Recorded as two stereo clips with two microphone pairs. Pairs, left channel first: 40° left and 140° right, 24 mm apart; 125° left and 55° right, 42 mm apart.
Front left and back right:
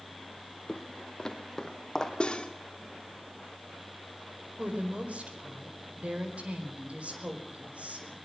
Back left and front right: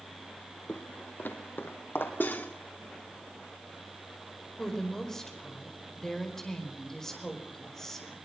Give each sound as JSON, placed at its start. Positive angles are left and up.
{"t": 0.7, "sound": "footsteps", "azimuth_deg": 100, "distance_m": 2.0}
{"t": 2.2, "sound": "cutlery clinking", "azimuth_deg": 90, "distance_m": 2.0}
{"t": 4.6, "sound": "a woman speaking", "azimuth_deg": -160, "distance_m": 4.5}